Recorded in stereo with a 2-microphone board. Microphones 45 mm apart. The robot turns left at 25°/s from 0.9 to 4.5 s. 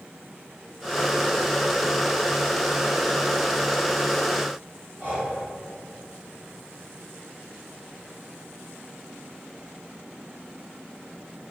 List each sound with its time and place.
5.0 s breathing: 45° right (ahead or behind), 1.9 m